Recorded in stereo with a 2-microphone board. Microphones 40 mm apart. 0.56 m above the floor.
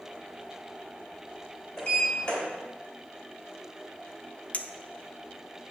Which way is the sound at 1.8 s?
30° left (ahead or behind).